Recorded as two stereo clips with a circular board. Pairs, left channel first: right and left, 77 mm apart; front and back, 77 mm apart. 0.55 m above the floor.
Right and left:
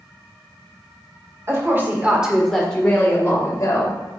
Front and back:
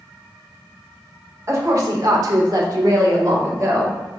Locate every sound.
1.5 s a woman speaking: 135° left, 1.8 m; by 4.0 s 130° right, 2.5 m